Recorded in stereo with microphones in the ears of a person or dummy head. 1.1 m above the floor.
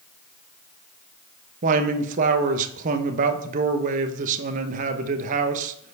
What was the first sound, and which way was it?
A man speaking, 45° right (ahead or behind).